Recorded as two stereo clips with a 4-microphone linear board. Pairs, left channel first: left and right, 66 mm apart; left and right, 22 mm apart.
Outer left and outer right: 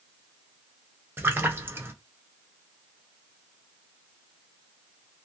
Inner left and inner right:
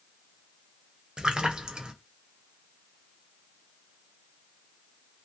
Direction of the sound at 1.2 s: 35° right (ahead or behind).